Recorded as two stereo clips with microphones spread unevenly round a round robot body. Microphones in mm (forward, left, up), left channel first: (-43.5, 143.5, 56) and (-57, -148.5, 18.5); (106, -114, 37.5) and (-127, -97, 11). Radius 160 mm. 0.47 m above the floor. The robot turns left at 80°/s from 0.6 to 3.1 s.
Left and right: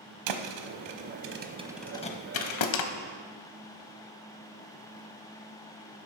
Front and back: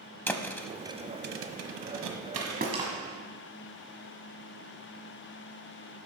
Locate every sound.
0.3 s a thud: 85° right, 1.0 m; by 2.9 s 95° left, 1.0 m